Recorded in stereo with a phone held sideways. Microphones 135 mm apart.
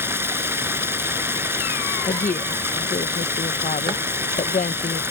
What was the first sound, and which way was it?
Running water, 20° right (ahead or behind).